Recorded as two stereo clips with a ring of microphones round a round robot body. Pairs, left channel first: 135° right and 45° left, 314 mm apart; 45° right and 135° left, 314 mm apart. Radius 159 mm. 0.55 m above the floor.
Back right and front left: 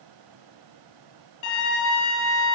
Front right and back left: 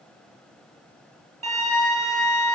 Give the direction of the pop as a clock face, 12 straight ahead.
No pop in this recording.